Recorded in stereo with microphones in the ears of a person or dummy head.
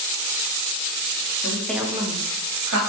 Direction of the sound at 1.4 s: 15° left (ahead or behind).